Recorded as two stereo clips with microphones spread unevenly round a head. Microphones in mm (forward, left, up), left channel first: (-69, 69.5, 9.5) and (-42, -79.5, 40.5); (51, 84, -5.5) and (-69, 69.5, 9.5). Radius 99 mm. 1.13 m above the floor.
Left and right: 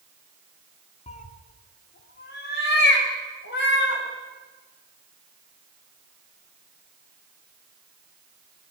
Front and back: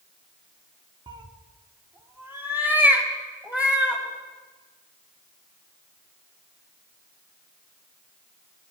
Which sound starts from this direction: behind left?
A cat meowing, at 1.1 s.